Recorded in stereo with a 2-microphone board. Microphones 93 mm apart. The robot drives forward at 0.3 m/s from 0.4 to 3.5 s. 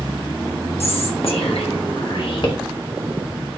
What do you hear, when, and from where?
0.8 s whispering: 85° left, 0.8 m; by 2.5 s 55° left (ahead or behind), 1.0 m